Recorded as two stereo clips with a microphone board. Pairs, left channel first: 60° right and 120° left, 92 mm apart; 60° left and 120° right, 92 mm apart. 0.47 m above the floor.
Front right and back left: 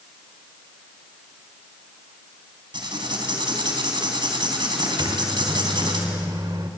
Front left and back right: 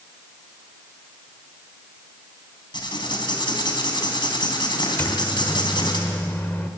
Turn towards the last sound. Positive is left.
turn(degrees=125)